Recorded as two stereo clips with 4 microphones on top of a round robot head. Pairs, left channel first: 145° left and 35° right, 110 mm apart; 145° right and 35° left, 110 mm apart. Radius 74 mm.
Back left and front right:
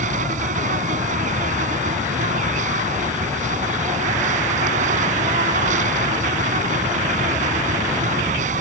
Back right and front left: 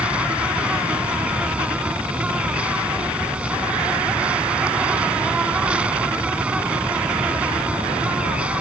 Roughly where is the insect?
Ahead right.